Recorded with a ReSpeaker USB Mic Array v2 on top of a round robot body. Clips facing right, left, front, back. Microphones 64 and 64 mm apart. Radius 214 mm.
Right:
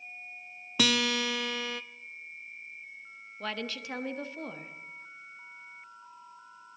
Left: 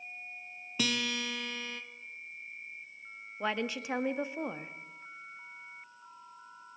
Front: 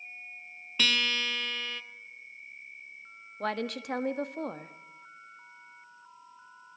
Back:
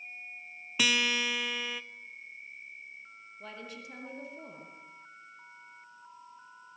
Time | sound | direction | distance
0.8 | a guitar | 100° right | 0.7 m
3.4 | a woman speaking | 20° left | 1.5 m